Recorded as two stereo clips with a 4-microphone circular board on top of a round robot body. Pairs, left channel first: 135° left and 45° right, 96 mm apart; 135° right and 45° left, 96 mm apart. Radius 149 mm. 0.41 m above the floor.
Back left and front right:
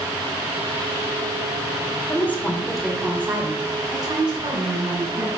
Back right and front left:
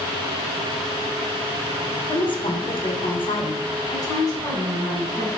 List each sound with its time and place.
2.1 s a woman speaking: 160° right, 2 m; by 5.3 s 70° right, 3.5 m